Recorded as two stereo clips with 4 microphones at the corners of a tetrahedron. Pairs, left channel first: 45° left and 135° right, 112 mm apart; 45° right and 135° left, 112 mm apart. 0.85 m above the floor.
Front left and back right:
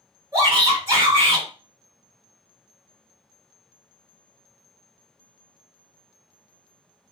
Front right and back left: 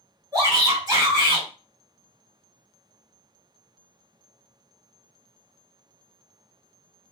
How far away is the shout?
About 1.5 m.